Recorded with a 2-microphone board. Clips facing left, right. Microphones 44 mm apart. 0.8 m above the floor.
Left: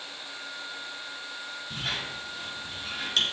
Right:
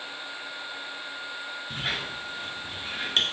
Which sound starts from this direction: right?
A squeak, at 1.7 s.